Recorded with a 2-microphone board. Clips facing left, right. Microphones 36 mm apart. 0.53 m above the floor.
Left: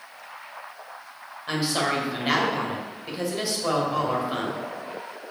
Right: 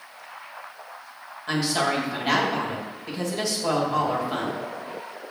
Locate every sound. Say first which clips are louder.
1.5 s a woman speaking: right 1 dB; 10° left (ahead or behind), 2.5 m